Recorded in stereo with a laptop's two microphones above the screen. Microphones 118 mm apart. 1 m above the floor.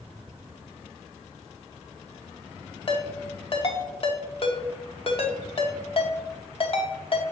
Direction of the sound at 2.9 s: 50° left (ahead or behind).